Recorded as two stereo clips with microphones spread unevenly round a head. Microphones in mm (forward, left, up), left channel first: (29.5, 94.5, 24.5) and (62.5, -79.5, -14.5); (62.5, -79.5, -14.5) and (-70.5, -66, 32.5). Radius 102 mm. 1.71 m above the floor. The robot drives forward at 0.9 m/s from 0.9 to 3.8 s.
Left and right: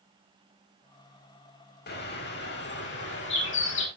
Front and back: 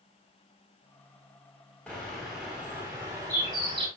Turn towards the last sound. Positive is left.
turn(degrees=110)